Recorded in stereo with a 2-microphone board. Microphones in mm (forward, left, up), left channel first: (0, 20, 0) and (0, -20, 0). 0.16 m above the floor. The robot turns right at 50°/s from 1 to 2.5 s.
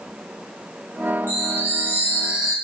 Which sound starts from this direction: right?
A chime, at 1.3 s.